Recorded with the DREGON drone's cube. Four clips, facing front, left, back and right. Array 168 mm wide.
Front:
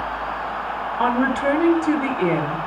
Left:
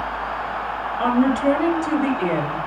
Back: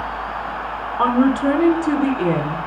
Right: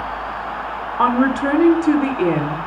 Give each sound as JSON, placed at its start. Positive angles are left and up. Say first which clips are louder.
{"t": 1.0, "sound": "a woman speaking", "louder": "right 2 dB, back 4 dB", "azimuth_deg": -120, "distance_m": 3.5}